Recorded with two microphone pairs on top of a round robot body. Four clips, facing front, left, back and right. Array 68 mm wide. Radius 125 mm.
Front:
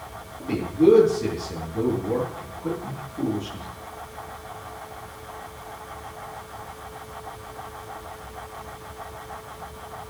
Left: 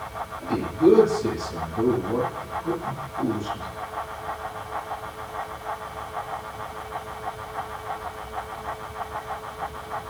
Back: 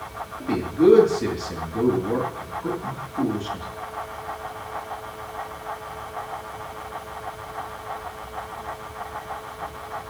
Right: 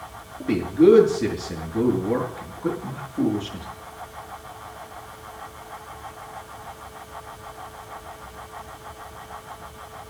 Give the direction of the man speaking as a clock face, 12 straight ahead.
4 o'clock.